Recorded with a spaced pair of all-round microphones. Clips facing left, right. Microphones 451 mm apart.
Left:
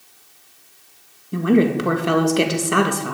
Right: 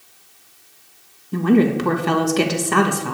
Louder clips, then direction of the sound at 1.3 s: Right 1 dB; 5° right (ahead or behind).